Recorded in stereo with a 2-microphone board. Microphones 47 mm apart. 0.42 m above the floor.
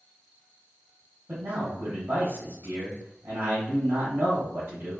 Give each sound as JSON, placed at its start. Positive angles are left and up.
{"t": 1.3, "sound": "a man speaking", "side_deg": -55, "distance_m": 2.5}